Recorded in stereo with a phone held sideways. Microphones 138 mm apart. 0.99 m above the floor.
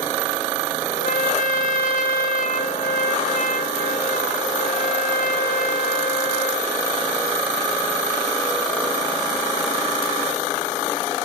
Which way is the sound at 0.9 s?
80° left.